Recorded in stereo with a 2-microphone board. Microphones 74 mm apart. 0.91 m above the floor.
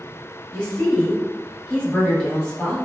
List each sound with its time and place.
0.5 s a woman speaking: 15° left (ahead or behind), 1.1 m